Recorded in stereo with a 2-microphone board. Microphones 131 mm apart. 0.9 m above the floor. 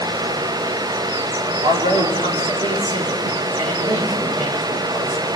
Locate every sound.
1.6 s a man speaking: 70° right (ahead or behind), 2.5 m